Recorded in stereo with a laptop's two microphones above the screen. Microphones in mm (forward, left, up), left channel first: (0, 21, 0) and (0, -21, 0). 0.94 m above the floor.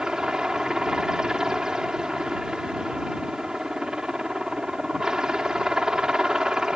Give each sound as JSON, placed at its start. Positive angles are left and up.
{"t": 0.0, "sound": "a helicopter", "side_deg": -15}